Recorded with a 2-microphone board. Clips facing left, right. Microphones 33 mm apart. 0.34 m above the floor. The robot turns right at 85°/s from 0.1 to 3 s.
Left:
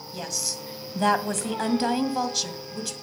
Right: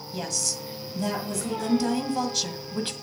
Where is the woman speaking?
15° right, 1.8 m; by 2.9 s 135° right, 1.8 m.